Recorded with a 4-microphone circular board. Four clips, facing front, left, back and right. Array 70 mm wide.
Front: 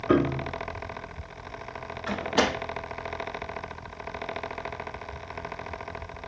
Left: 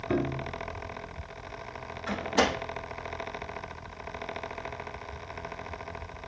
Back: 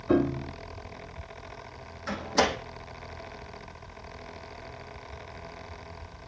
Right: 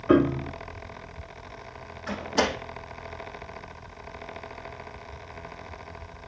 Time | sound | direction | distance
0.1 | a piano | 65° right | 0.6 m
2.1 | a door slam | straight ahead | 6 m